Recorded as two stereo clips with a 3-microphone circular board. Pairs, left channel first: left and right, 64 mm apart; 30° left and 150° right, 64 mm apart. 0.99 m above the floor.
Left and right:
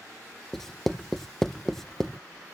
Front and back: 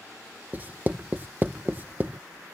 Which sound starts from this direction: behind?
Writing, at 0.5 s.